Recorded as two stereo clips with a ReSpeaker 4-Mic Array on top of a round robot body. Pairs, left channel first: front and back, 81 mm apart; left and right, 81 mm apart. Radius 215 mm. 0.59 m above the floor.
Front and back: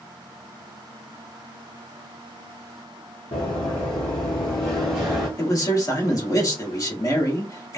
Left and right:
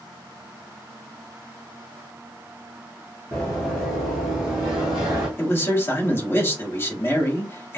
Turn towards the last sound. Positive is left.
turn(degrees=35)